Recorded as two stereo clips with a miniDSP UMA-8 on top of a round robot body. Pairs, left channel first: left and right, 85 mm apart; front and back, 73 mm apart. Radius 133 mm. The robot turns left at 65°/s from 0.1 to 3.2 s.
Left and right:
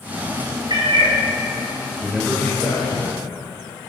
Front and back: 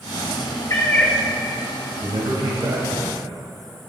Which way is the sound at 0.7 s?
50° right.